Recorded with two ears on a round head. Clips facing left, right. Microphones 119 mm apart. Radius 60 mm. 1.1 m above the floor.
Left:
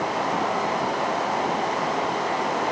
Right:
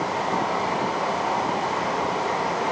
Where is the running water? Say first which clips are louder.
Even; 80° left, 9 m.